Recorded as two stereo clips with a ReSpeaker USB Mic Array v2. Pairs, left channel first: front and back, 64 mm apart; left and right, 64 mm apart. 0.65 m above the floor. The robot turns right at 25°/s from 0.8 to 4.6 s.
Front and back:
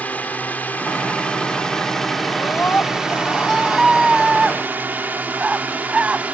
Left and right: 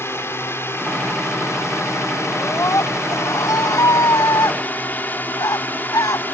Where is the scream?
50° left; by 6.2 s 110° left.